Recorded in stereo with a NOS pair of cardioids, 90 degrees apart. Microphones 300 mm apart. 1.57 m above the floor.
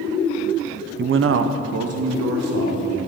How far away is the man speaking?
About 0.7 m.